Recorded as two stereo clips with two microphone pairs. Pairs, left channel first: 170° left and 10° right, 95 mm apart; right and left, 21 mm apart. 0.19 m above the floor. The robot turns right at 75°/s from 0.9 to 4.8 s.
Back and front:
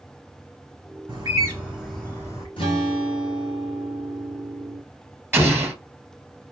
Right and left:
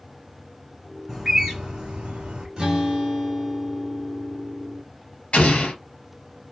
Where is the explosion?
80° right, 2.0 m.